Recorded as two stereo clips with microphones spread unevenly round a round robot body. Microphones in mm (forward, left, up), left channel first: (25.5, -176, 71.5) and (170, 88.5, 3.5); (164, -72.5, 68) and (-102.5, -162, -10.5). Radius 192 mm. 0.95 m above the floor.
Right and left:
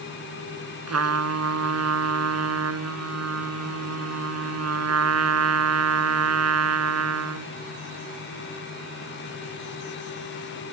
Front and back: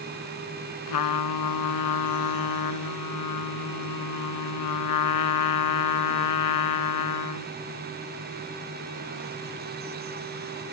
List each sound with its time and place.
0.9 s a trumpet: 20° left